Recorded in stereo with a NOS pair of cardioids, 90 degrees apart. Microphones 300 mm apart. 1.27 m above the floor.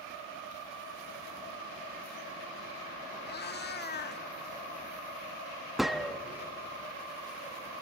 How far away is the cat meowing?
About 1.5 m.